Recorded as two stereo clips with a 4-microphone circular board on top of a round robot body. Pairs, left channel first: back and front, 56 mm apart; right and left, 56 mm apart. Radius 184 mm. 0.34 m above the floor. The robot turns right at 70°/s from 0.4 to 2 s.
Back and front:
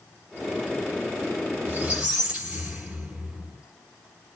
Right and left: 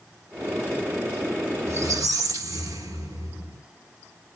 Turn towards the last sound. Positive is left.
turn(degrees=75)